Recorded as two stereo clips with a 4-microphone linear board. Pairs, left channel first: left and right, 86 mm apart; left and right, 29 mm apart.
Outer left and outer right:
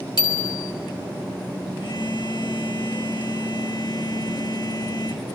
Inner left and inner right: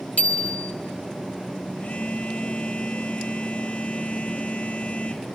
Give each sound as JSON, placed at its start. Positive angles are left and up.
{"t": 0.2, "sound": "a bicycle bell", "side_deg": 55, "distance_m": 3.0}
{"t": 1.8, "sound": "a phone buzzing", "side_deg": 65, "distance_m": 3.5}